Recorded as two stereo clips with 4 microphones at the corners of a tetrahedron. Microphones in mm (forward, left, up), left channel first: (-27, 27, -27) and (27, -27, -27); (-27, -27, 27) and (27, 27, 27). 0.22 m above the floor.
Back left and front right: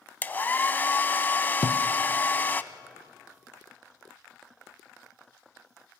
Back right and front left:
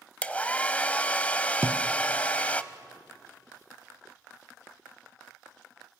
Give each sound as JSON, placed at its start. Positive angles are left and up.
{"t": 0.2, "sound": "a hair dryer", "azimuth_deg": 170, "distance_m": 0.8}
{"t": 1.6, "sound": "a thud", "azimuth_deg": 110, "distance_m": 1.0}